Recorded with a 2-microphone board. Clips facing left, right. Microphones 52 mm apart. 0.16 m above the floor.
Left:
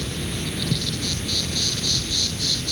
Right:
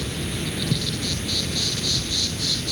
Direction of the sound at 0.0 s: 5° right (ahead or behind).